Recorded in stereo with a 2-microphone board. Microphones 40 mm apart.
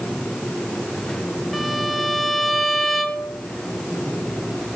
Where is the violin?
Centre (ahead or behind), 1.6 m.